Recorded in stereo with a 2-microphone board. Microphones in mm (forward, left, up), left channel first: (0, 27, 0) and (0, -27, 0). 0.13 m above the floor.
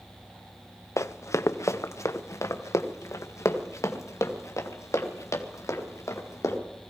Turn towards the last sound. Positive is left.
turn(degrees=70)  # may be behind; listen again after turning